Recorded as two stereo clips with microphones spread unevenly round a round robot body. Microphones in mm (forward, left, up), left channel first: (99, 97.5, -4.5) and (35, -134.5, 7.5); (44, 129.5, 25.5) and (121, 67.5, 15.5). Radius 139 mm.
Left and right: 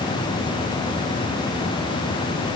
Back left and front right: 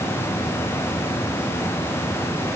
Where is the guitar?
No guitar in this recording.